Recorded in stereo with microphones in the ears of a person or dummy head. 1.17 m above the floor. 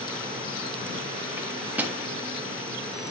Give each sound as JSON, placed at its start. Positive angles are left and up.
{"t": 1.4, "sound": "a microwave", "side_deg": -10, "distance_m": 1.5}